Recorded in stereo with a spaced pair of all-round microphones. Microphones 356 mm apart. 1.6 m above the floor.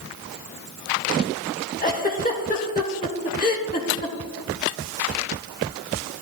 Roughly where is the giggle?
Left.